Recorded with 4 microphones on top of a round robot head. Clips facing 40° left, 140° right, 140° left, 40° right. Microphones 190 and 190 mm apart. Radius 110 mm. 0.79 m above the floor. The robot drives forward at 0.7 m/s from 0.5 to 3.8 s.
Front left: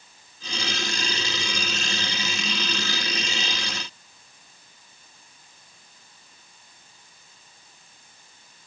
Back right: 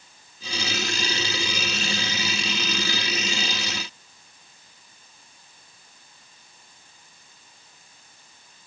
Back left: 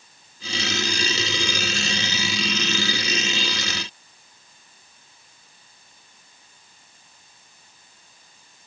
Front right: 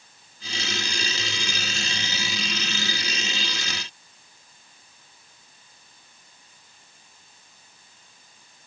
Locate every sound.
Only background noise.